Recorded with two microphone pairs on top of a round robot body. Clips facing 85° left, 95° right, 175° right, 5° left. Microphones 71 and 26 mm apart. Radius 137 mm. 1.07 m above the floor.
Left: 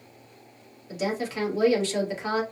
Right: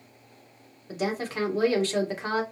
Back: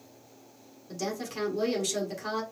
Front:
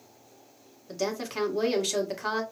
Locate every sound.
0.9 s a woman speaking: 55° right, 1.6 m